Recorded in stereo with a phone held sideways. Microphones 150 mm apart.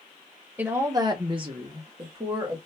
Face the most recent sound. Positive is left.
turn(degrees=-35)  # may be behind; listen again after turning